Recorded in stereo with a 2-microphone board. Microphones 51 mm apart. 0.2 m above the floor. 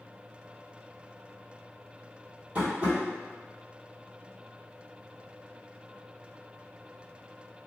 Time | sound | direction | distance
2.5 | tapping | 25° right (ahead or behind) | 1.3 m